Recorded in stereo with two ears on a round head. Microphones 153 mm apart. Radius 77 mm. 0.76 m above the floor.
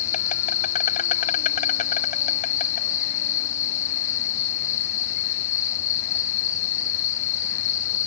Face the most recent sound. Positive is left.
turn(degrees=50)  # may be behind; listen again after turning